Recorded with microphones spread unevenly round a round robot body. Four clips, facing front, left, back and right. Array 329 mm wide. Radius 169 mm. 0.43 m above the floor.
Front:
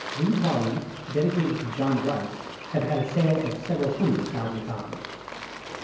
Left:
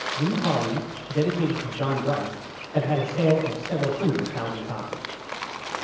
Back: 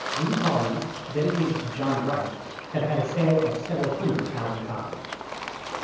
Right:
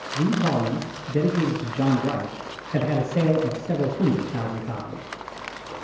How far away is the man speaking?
About 6 m.